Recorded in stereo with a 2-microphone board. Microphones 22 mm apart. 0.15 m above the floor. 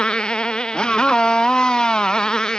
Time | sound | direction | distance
0.0 | a motorcycle | 45° left (ahead or behind) | ?